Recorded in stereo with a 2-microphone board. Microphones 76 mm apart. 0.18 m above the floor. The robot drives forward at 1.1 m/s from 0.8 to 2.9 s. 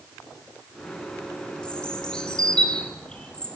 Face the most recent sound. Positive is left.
turn(degrees=10)  # may be behind; listen again after turning